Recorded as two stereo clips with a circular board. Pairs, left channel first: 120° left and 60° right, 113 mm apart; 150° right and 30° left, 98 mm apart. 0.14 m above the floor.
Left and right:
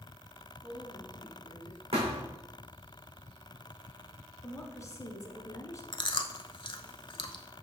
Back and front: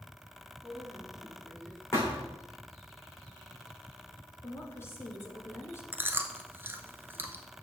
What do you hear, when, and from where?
0.6 s a woman speaking: 125° left, 2 m
1.9 s a thud: 85° right, 3 m
4.4 s a woman speaking: 160° left, 1.3 m
5.9 s chewing: 90° left, 0.6 m